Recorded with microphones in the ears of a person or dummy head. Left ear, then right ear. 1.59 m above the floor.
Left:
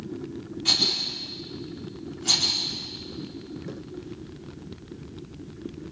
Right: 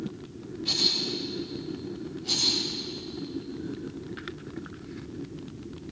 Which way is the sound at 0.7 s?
45° left (ahead or behind).